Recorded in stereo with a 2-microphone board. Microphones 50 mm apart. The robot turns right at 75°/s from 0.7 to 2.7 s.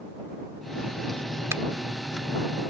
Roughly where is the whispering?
I don't hear whispering.